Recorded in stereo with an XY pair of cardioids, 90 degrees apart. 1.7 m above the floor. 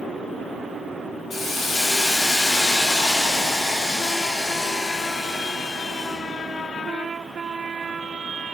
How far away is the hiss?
About 2 m.